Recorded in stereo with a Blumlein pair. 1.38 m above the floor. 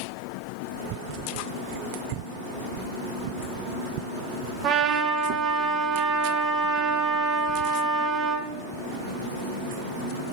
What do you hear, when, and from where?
4.6 s a trumpet: 30° right, 0.9 m